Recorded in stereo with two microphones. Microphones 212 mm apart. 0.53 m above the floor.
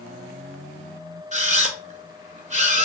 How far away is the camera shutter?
About 1.0 m.